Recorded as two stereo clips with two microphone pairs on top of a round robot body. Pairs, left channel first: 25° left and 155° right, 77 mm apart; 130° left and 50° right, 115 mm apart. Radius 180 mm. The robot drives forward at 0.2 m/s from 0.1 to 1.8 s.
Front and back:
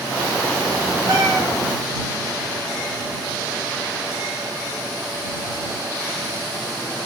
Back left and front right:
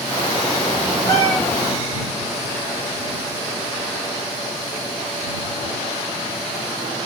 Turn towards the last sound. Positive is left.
turn(degrees=-165)